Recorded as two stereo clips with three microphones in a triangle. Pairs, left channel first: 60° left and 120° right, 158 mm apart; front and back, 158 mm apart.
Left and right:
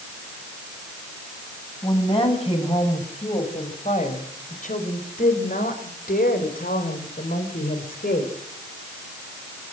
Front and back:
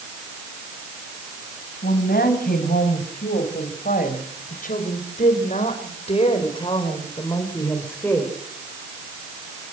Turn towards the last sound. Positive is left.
turn(degrees=85)